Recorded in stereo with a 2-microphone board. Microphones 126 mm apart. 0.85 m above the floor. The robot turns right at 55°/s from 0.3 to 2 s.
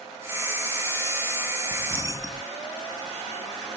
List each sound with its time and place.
1.7 s keys jangling: 5° right (ahead or behind); by 2.4 s 25° right (ahead or behind)